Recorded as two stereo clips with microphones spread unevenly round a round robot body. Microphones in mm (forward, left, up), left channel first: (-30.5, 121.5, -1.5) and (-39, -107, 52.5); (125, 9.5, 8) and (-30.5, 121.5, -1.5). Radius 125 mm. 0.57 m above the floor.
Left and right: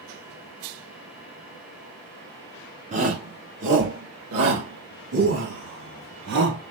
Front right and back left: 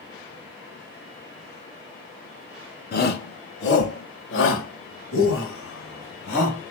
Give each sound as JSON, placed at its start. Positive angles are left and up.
{"t": 2.9, "sound": "a shout", "azimuth_deg": -25, "distance_m": 1.3}